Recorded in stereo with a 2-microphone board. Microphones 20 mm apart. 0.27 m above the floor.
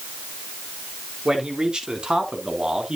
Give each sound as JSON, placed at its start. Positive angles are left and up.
{"t": 1.2, "sound": "a man speaking", "side_deg": -45, "distance_m": 3.0}